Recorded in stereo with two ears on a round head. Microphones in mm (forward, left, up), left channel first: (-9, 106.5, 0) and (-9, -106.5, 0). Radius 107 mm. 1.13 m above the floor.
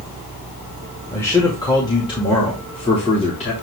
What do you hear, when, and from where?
1.1 s a man speaking: 10° left (ahead or behind), 2.0 m; by 3.5 s 30° left (ahead or behind), 3 m